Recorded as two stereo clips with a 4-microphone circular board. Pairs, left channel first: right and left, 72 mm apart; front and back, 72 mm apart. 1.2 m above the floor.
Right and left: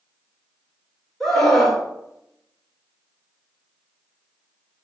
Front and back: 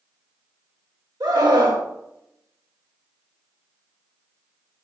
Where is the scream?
175° right, 3.5 m.